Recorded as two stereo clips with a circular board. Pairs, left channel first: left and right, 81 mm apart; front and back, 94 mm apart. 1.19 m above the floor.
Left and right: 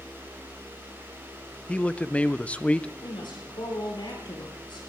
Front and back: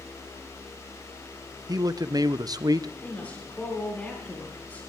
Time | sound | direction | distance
1.7 | a man speaking | 160° left | 0.6 m
3.0 | a woman speaking | 75° left | 9 m